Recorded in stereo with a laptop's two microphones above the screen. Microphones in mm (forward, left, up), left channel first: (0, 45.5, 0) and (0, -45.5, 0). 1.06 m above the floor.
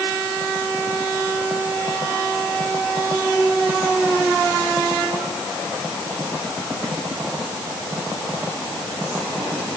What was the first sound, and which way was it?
Only background noise.